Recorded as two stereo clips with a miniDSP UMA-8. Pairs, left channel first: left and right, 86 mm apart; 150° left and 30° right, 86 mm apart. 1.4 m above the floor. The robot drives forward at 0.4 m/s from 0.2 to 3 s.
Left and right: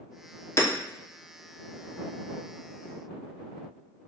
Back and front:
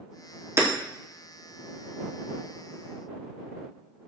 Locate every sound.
0.6 s hammering: 30° left, 0.7 m